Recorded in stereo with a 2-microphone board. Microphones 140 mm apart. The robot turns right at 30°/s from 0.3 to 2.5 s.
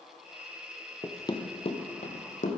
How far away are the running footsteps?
About 0.9 m.